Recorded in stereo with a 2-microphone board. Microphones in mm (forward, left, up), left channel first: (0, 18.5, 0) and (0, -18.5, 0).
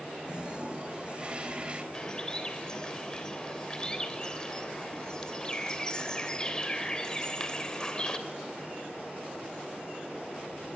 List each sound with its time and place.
0.2 s a toilet flushing: 30° right (ahead or behind), 3 m
1.9 s a bird: 20° left (ahead or behind), 3 m